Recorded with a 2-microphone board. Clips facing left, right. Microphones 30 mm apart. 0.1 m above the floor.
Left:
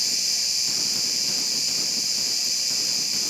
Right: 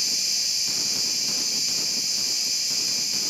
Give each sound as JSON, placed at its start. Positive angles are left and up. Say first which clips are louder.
{"t": 0.0, "sound": "an insect", "louder": "even", "side_deg": 65, "distance_m": 1.4}